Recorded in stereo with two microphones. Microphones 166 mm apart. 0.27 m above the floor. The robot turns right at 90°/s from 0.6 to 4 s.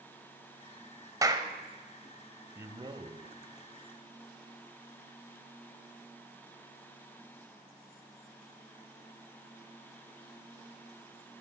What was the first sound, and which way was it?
A clap, 20° right (ahead or behind).